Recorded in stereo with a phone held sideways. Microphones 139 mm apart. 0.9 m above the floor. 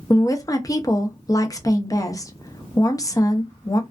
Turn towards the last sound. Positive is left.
turn(degrees=25)  # may be behind; listen again after turning